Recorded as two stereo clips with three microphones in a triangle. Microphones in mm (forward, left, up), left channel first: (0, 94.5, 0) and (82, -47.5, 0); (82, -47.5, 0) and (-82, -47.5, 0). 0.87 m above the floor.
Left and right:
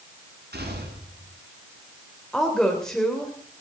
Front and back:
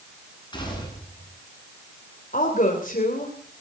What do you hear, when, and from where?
0.5 s a gunshot: 65° right, 9 m
2.3 s a woman speaking: 35° left, 3 m